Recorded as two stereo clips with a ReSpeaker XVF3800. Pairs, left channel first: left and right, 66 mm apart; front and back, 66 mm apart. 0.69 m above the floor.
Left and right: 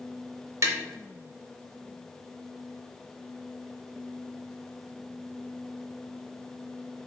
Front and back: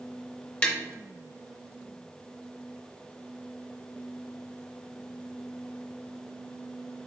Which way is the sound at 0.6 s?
70° right.